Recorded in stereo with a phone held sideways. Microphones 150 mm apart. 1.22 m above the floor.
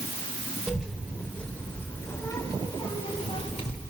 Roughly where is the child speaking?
Centre.